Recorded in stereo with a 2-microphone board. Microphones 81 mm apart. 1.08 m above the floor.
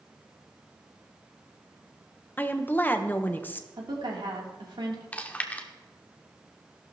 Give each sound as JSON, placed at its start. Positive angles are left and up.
{"t": 2.4, "sound": "a woman speaking", "side_deg": 25, "distance_m": 0.9}
{"t": 3.8, "sound": "a woman speaking", "side_deg": -80, "distance_m": 3.0}
{"t": 5.1, "sound": "chewing", "side_deg": 20, "distance_m": 1.1}